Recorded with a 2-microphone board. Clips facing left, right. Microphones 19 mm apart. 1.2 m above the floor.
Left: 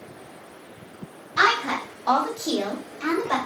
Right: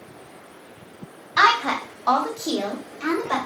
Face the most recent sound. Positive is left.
turn(degrees=-30)  # may be behind; listen again after turning